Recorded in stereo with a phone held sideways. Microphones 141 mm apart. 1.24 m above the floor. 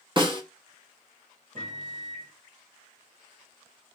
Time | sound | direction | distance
0.2 | a snare drum | 35° right (ahead or behind) | 0.9 m
1.6 | a microwave | 65° right (ahead or behind) | 1.5 m